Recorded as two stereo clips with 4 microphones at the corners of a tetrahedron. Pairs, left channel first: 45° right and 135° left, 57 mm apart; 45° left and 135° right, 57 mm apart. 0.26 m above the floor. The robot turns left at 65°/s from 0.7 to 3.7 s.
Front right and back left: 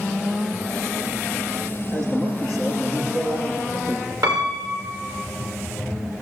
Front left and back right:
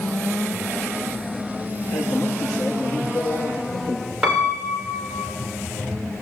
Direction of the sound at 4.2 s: 145° left.